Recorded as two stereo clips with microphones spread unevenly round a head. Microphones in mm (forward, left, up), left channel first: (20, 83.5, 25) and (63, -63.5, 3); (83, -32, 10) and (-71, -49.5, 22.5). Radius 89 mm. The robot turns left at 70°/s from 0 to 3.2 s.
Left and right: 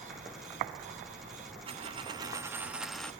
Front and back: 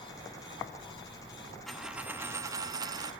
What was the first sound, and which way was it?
A dropped coin, 90° right.